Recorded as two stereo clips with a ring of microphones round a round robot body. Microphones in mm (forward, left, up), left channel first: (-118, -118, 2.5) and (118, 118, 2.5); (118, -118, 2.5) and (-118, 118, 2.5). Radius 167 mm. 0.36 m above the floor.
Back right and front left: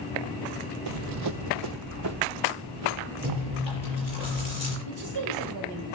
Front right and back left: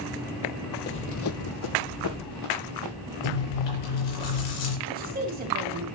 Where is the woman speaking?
75° left, 2.5 m.